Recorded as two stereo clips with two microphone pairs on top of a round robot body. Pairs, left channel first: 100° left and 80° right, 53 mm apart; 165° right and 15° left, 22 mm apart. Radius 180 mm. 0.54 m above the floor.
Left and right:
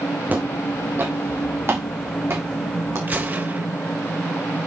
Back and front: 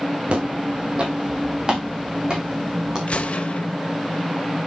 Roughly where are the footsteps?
Ahead.